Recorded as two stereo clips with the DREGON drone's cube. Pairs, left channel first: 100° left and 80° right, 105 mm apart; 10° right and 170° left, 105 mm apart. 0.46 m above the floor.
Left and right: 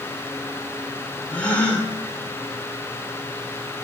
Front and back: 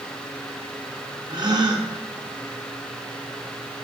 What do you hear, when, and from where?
1.3 s a gasp: 170° left, 0.7 m